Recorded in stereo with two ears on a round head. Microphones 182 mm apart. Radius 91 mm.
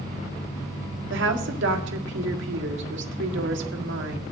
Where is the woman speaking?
70° right (ahead or behind), 1.9 m.